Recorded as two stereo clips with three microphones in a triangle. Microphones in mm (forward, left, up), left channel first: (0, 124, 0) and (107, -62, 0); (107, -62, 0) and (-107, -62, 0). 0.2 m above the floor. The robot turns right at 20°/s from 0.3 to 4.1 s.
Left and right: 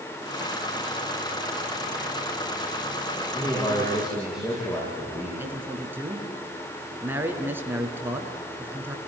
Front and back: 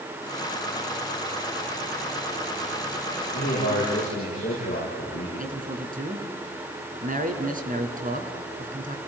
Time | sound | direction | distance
3.3 | a man speaking | 35° left | 8.5 m
5.4 | a man speaking | 140° right | 3 m